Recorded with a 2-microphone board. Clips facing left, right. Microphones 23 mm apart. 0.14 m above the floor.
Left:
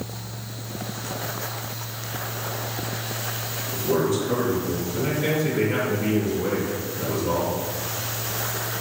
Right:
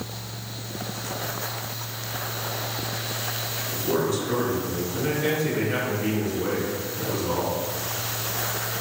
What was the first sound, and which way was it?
A man speaking, 10° right (ahead or behind).